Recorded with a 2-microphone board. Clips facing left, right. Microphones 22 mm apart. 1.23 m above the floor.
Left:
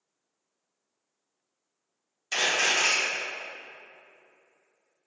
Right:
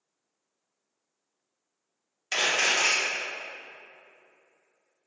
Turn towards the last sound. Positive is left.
turn(degrees=-30)  # may be behind; listen again after turning